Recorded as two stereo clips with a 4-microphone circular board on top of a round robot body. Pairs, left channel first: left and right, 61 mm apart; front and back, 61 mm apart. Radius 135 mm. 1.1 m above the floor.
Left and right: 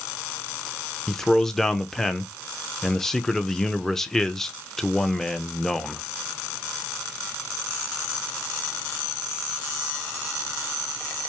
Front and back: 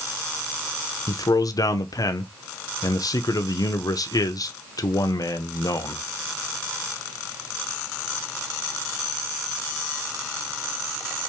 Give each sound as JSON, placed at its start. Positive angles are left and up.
{"t": 1.1, "sound": "a man speaking", "azimuth_deg": 5, "distance_m": 0.6}